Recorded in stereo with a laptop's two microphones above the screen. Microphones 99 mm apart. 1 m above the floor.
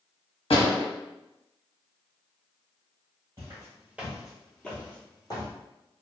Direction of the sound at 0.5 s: 70° left (ahead or behind).